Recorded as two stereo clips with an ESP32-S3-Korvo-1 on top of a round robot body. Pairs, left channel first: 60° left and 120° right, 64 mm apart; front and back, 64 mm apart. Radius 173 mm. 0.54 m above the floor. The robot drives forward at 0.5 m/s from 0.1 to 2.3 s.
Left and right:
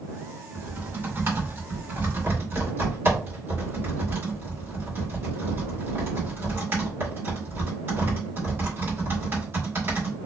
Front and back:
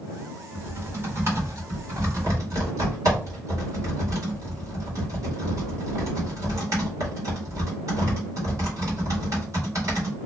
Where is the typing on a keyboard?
150° right, 1.5 m; by 10.2 s 165° right, 2 m.